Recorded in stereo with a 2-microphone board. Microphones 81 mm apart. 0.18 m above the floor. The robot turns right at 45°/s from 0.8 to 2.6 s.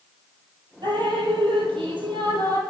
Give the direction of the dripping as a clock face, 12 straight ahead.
4 o'clock.